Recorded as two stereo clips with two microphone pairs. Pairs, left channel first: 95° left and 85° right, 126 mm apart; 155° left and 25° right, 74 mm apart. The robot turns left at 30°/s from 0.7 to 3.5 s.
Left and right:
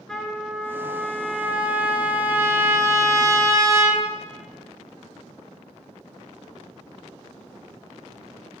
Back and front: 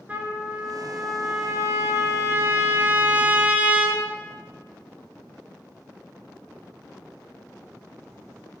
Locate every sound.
0.1 s a trumpet: 10° left, 0.8 m; by 4.1 s 70° right, 0.8 m